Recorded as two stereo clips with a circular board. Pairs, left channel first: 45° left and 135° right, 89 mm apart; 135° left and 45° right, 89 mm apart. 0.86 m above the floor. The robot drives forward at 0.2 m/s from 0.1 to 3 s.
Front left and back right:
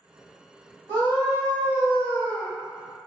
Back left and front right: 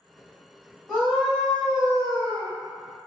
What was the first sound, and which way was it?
A scream, 110° right.